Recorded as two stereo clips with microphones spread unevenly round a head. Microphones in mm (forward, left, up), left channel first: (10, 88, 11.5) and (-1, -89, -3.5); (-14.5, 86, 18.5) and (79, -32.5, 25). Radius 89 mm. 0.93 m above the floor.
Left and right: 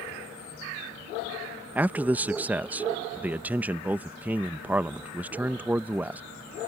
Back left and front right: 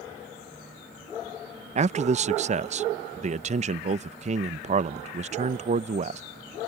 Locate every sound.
1.8 s a man speaking: 20° right